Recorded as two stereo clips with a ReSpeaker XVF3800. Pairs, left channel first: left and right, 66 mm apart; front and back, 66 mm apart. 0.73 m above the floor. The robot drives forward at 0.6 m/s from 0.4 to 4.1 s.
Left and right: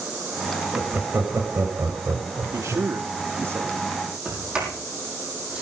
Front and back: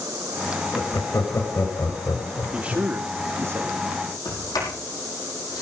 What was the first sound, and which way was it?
Laughter, 35° right.